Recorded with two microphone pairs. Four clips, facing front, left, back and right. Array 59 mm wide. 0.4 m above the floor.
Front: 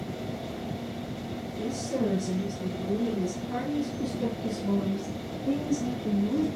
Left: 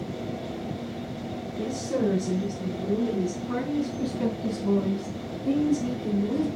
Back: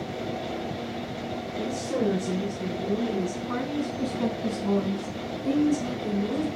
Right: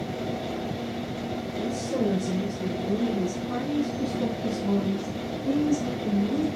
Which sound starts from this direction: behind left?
A woman speaking, at 1.6 s.